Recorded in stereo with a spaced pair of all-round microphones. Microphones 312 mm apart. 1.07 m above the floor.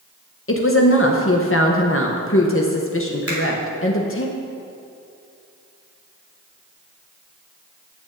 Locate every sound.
0.5 s a woman speaking: 45° left (ahead or behind), 0.7 m
3.3 s a finger snap: 50° right (ahead or behind), 2.5 m